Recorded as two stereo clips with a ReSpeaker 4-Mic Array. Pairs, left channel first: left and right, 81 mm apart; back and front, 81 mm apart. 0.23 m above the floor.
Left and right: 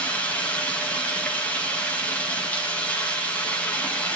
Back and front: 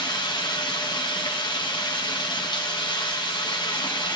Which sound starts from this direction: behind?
Running water, at 0.0 s.